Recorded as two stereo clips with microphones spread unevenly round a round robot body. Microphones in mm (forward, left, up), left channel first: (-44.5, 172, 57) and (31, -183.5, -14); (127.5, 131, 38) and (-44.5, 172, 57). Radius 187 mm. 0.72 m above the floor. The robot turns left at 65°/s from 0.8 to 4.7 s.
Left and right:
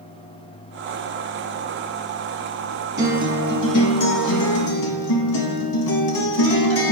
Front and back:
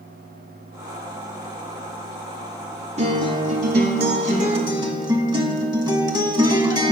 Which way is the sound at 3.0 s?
145° right.